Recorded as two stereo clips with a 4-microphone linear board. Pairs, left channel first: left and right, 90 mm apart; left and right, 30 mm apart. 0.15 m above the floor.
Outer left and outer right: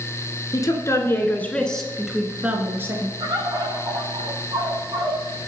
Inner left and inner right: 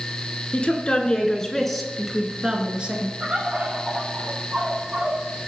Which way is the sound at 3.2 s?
50° right (ahead or behind).